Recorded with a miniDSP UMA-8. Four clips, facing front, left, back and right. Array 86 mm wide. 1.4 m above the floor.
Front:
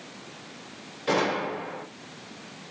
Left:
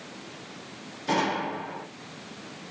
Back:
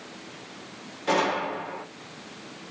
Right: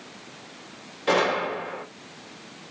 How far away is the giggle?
I don't hear a giggle.